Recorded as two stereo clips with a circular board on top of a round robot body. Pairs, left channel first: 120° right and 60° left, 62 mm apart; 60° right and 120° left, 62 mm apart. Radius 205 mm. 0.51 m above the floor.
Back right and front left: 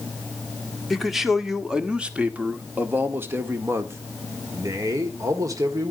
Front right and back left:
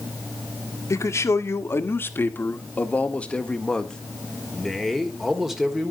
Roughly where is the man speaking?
Ahead right.